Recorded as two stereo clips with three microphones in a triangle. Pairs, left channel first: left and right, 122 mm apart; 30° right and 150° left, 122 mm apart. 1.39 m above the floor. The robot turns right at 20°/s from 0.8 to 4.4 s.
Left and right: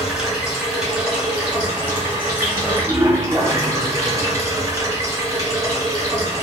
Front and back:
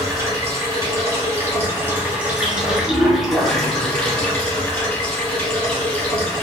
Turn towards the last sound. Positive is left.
turn(degrees=-100)